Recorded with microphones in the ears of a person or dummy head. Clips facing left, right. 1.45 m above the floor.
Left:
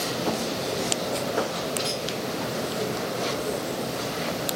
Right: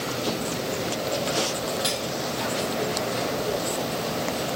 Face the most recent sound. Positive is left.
turn(degrees=-15)  # may be behind; listen again after turning